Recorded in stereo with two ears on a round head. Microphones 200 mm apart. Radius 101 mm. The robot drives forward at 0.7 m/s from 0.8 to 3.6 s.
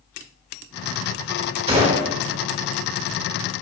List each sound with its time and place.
1.7 s a gunshot: 25° right (ahead or behind), 1.5 m; by 2.1 s 30° right (ahead or behind), 1.3 m